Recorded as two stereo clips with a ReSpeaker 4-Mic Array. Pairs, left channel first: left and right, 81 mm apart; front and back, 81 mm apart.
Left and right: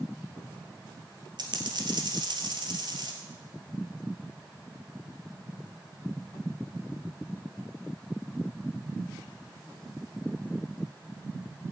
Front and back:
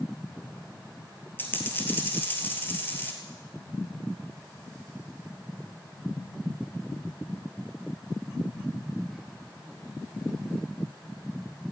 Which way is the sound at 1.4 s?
65° right.